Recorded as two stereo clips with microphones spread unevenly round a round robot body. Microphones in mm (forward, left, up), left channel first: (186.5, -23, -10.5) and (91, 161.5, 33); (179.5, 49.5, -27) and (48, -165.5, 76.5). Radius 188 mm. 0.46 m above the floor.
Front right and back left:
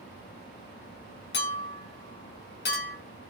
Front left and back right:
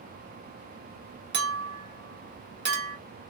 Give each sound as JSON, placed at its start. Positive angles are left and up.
{"t": 1.3, "sound": "a clink", "azimuth_deg": -60, "distance_m": 1.1}